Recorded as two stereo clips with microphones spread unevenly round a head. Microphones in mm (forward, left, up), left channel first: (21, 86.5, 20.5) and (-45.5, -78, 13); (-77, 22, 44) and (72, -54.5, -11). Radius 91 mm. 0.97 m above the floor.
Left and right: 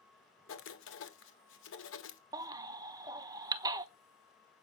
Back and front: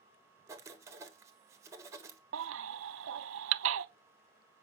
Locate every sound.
0.5 s writing: 45° left, 1.6 m
2.3 s a baby crying: 40° right, 0.7 m